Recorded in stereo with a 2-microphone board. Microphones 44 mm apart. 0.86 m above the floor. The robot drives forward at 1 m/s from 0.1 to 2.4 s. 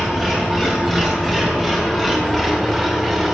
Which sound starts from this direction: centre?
An engine running, at 0.0 s.